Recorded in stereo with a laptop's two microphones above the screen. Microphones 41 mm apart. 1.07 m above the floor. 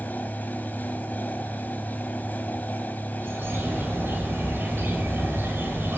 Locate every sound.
0.0 s a fan: 50° left (ahead or behind), 1.5 m
3.2 s a bird: 85° right, 3 m